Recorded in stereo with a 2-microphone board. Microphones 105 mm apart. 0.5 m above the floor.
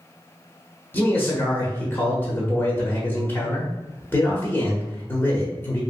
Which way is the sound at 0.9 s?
20° left (ahead or behind).